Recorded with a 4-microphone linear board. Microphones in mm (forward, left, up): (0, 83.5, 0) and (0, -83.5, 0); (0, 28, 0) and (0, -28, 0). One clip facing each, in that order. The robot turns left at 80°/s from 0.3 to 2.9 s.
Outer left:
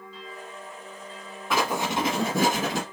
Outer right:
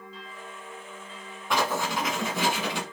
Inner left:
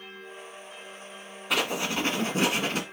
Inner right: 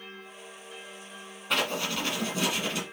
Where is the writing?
Straight behind, 1.4 m; by 2.8 s 70° left, 1.4 m.